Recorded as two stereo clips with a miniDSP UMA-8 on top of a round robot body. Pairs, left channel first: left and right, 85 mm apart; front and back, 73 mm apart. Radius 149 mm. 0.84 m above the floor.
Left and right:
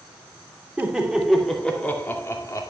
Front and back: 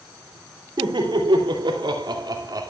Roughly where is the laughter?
Behind.